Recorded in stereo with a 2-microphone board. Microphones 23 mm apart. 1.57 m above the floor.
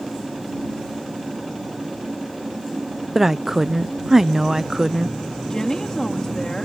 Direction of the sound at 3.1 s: 15° right (ahead or behind).